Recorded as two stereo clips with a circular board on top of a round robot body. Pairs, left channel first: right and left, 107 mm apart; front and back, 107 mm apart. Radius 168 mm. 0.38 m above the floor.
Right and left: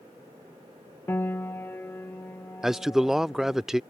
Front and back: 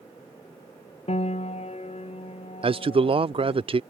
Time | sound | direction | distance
1.1 | a piano | 20° right | ?
2.6 | a man speaking | 175° left | ?